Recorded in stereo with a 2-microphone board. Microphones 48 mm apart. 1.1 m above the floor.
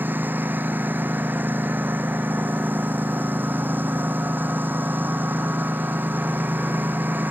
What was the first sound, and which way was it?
A lawn mower, 45° right (ahead or behind).